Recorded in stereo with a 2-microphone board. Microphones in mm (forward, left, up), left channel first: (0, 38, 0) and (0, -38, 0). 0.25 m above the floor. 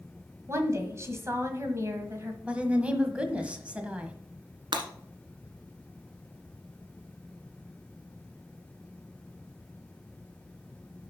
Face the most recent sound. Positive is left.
turn(degrees=-75)  # may be behind; listen again after turning